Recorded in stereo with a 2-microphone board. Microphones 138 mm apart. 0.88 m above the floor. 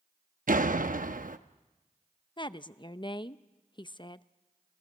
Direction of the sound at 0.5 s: 80° right.